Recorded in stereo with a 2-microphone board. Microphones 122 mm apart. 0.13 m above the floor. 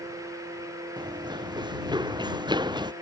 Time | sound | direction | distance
1.0 | running footsteps | 40° right (ahead or behind) | ?